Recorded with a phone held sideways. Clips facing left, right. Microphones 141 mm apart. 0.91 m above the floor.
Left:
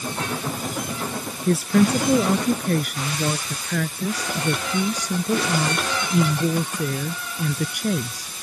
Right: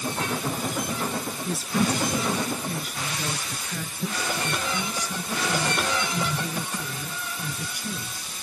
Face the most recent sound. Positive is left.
turn(degrees=85)